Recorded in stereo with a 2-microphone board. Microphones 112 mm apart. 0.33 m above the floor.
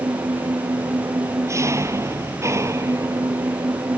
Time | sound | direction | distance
0.0 | an engine running | 25° right (ahead or behind) | ?